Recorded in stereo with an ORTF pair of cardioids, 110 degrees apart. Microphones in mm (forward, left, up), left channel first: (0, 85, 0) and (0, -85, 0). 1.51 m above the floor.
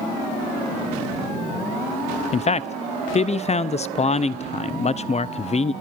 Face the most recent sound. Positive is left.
turn(degrees=40)